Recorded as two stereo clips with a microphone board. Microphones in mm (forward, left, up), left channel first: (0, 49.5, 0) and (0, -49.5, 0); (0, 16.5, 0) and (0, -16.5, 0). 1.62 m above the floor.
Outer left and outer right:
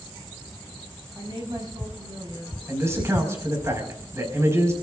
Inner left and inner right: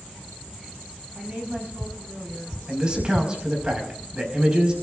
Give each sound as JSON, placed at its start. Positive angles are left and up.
{"t": 1.1, "sound": "a woman speaking", "side_deg": -50, "distance_m": 6.5}
{"t": 2.7, "sound": "a man speaking", "side_deg": -30, "distance_m": 5.5}